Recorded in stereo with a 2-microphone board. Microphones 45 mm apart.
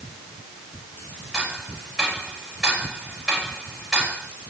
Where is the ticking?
10° right (ahead or behind), 5 m.